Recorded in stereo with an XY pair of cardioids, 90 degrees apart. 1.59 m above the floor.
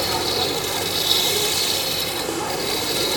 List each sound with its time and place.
0.0 s a machine running: 10° right